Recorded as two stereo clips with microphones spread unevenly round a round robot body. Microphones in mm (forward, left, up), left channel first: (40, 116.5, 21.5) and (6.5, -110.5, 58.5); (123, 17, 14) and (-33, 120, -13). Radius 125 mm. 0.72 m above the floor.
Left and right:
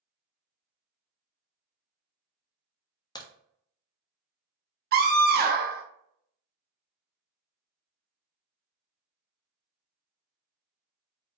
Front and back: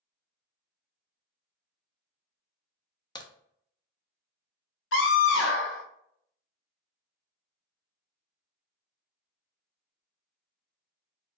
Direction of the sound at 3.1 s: 35° left.